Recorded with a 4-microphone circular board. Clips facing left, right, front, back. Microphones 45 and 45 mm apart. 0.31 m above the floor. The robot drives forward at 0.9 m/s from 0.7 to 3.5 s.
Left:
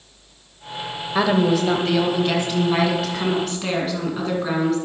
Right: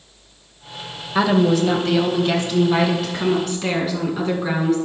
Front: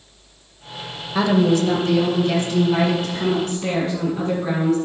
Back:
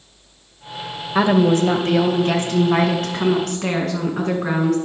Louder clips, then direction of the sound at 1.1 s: Right 2 dB, back 2 dB; 165° left.